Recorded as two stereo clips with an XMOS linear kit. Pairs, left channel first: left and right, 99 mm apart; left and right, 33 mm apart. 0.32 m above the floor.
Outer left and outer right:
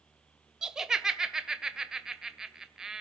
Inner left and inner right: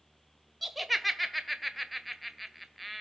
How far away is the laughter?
About 1.4 m.